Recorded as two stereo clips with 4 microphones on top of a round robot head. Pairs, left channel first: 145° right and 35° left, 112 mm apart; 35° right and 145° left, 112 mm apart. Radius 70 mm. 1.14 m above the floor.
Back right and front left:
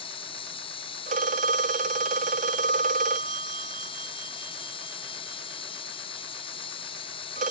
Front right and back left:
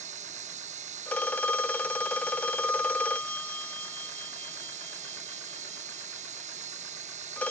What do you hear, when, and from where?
0.0 s running water: 170° left
1.1 s a phone ringing: 45° left